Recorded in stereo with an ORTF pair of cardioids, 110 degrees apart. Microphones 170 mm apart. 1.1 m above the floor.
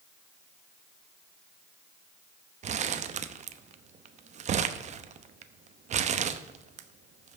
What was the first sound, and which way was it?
Crumpling, 45° right.